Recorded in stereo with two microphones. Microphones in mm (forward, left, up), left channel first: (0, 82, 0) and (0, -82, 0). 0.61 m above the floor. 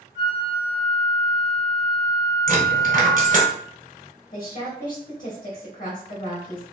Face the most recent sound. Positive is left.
turn(degrees=55)  # may be behind; listen again after turning